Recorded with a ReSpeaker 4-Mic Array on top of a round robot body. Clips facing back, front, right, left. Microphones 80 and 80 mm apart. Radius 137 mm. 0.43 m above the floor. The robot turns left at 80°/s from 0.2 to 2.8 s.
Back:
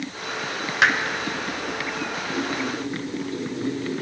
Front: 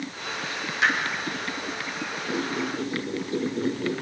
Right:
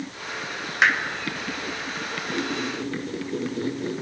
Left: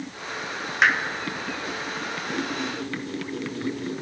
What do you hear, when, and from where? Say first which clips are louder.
0.8 s hammering: back 4 dB, even; straight behind, 1.4 m; by 1.0 s 170° left, 1.4 m
2.3 s a squeak: even, right 2 dB; 10° left, 1.8 m; by 3.9 s 35° right, 1.8 m